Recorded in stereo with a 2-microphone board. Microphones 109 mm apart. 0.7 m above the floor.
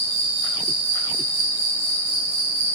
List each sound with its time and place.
0.0 s an insect: 30° right (ahead or behind), 1.9 m